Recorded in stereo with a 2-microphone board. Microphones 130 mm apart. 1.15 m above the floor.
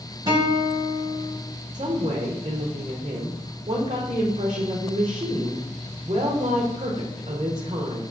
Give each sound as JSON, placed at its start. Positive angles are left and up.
{"t": 0.3, "sound": "a guitar", "side_deg": -35, "distance_m": 1.2}
{"t": 1.7, "sound": "a woman speaking", "side_deg": -45, "distance_m": 0.7}